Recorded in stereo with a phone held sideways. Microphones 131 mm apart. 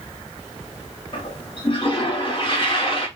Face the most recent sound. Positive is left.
turn(degrees=40)  # may be behind; listen again after turning